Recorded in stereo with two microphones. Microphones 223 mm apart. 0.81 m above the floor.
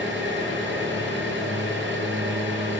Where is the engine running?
55° right (ahead or behind), 10 m.